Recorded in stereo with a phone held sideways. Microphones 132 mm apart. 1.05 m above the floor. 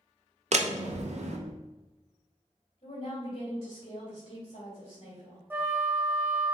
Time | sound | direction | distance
0.5 | a door slam | 60° right (ahead or behind) | 0.5 m
2.8 | a woman speaking | 45° left (ahead or behind) | 1.8 m
5.5 | a flute | 15° right (ahead or behind) | 0.6 m